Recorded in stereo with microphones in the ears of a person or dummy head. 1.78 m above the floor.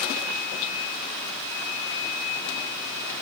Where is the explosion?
I don't hear an explosion.